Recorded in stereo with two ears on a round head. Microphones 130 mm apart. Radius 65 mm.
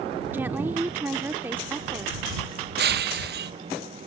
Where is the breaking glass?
75° right (ahead or behind).